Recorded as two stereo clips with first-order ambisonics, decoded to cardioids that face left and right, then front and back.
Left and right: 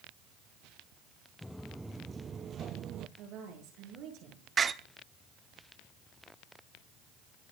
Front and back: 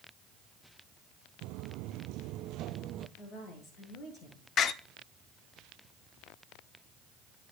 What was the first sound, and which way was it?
Footsteps, 175° left.